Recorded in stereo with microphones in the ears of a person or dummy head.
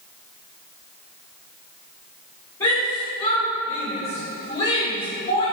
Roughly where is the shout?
Left.